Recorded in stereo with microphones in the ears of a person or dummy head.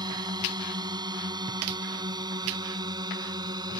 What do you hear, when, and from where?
0.0 s a drone: 25° right (ahead or behind); by 3.8 s 20° right (ahead or behind)